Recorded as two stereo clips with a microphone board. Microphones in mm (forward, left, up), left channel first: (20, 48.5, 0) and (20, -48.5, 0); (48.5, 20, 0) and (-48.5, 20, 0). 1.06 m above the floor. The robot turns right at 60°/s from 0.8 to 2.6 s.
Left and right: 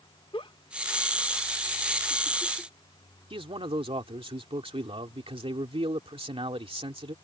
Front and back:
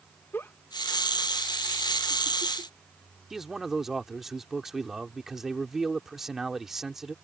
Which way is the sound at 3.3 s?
95° right.